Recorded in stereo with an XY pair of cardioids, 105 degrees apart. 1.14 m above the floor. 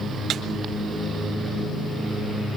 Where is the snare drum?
65° right, 4 m.